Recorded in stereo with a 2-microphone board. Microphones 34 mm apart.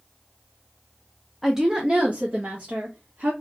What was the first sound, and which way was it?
A woman speaking, 5° right (ahead or behind).